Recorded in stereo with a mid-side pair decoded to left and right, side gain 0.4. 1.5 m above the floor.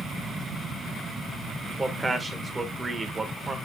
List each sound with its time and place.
1.8 s a man speaking: 25° right, 1.9 m